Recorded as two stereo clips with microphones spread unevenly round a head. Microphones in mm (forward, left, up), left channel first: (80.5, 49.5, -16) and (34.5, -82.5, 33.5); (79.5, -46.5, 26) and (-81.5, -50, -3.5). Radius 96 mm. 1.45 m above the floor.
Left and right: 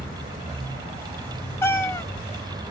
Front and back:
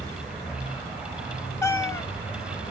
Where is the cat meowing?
20° right, 0.6 m.